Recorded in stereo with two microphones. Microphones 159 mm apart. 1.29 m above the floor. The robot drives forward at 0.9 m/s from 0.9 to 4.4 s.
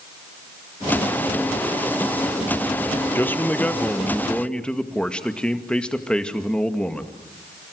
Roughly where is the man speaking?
Centre.